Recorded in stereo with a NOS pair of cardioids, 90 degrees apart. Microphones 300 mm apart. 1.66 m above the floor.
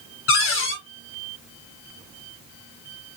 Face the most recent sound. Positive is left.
turn(degrees=45)